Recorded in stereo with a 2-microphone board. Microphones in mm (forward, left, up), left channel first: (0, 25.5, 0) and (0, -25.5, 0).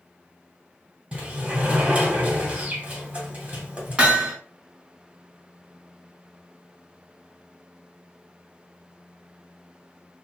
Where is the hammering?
20° right (ahead or behind), 0.9 m.